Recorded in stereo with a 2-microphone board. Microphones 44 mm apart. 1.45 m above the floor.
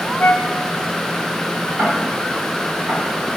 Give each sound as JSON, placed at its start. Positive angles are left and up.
{"t": 0.2, "sound": "a flute", "side_deg": 60, "distance_m": 1.3}
{"t": 1.8, "sound": "ticking", "side_deg": -60, "distance_m": 8.0}